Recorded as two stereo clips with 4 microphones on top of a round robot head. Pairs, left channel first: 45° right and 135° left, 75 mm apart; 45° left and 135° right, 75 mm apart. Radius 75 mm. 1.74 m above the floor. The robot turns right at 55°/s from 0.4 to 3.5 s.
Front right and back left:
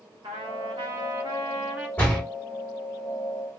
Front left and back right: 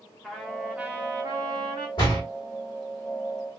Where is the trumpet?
125° left, 0.7 m; by 1.9 s 150° right, 0.7 m.